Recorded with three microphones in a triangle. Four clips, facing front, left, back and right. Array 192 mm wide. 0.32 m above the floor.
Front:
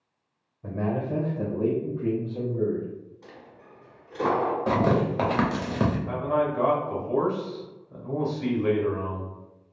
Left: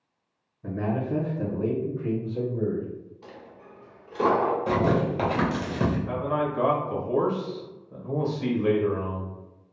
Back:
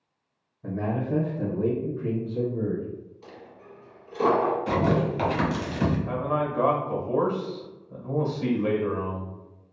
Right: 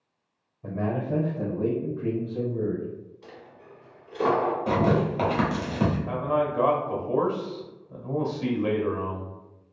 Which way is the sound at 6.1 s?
120° right.